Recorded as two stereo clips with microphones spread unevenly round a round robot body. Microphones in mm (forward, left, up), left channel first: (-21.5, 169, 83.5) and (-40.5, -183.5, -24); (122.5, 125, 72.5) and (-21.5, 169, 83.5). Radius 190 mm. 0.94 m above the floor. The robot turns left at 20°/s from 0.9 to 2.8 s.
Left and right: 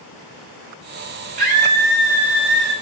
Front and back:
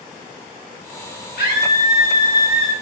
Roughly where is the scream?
Ahead right.